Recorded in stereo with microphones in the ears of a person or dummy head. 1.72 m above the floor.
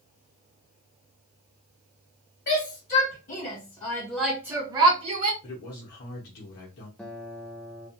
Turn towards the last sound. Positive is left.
turn(degrees=10)  # may be behind; listen again after turning